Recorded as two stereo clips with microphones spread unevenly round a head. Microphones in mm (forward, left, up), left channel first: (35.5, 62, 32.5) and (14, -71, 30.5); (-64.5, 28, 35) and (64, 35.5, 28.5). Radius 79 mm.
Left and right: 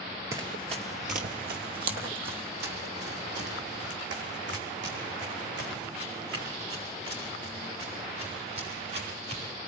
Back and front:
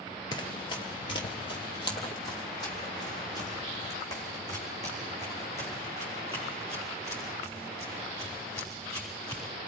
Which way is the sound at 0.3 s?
155° right.